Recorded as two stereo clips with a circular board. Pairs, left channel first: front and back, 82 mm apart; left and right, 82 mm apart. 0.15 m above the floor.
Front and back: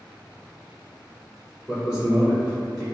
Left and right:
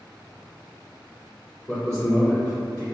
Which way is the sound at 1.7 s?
125° left.